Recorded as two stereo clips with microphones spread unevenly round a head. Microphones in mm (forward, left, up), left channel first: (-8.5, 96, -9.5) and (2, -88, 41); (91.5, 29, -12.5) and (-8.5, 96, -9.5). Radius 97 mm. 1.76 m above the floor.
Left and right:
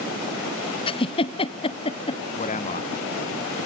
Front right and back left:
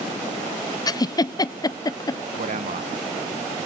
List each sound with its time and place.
0.9 s a giggle: 25° left, 0.8 m
2.4 s a man speaking: 150° left, 1.4 m